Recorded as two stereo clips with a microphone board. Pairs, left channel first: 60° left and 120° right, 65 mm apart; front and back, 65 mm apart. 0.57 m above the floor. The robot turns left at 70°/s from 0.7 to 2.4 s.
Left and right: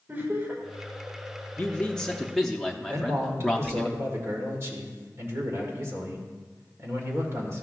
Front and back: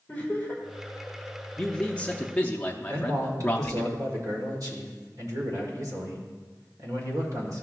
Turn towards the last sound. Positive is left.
turn(degrees=-165)